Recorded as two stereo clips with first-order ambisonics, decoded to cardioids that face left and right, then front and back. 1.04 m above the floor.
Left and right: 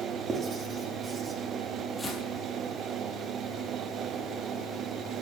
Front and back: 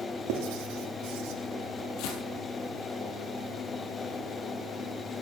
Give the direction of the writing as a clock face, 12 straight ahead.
5 o'clock.